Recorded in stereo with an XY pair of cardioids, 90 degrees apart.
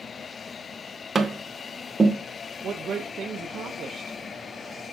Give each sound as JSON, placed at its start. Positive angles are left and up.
{"t": 1.1, "sound": "tapping", "azimuth_deg": -25, "distance_m": 0.8}
{"t": 2.6, "sound": "a woman speaking", "azimuth_deg": -60, "distance_m": 0.6}